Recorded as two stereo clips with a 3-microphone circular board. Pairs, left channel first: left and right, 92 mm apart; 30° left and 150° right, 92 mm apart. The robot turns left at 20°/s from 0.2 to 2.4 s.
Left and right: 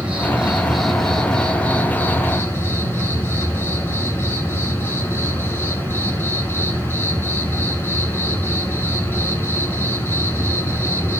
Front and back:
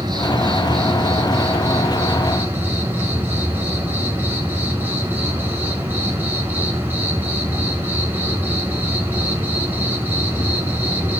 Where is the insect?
165° right, 3 m; by 11.2 s 150° left, 3 m.